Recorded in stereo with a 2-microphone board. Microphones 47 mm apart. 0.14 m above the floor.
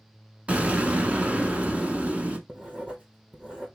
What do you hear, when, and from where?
0.5 s an explosion: 30° right (ahead or behind), 0.6 m
2.5 s writing: 20° right (ahead or behind), 1.0 m